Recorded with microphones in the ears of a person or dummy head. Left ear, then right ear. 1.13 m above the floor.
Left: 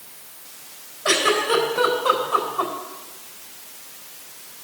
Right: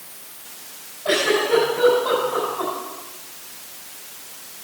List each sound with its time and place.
1.1 s a giggle: 65° left (ahead or behind), 3.5 m